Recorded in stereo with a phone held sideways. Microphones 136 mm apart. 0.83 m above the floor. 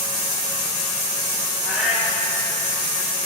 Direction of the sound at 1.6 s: 10° right (ahead or behind).